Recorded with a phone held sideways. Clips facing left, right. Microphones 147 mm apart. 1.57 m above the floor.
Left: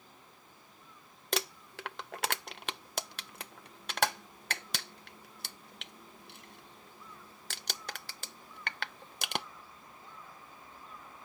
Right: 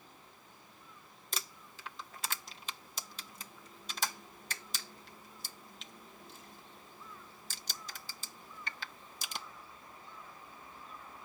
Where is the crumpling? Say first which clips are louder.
Left 11 dB; 70° left (ahead or behind).